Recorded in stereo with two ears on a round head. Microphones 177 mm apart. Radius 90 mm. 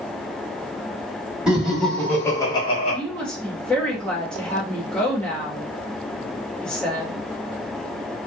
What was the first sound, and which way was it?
Laughter, 5° right (ahead or behind).